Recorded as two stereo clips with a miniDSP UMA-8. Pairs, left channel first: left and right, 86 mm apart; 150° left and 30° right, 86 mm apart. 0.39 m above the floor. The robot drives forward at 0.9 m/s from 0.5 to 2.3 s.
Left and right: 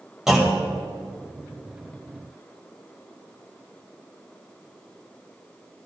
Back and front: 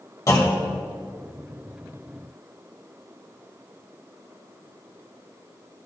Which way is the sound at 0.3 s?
175° right.